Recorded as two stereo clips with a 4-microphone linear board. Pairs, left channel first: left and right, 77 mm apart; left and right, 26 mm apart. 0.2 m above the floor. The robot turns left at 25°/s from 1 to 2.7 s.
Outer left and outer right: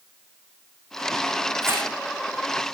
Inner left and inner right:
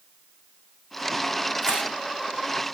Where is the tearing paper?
30° right (ahead or behind), 5.5 m; by 1.9 s 25° right (ahead or behind), 5.5 m.